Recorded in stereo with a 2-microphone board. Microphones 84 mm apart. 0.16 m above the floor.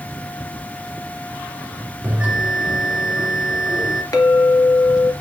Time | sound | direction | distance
2.0 | a bell | 20° right (ahead or behind) | 1.6 m
4.1 | a clink | 45° left (ahead or behind) | 1.9 m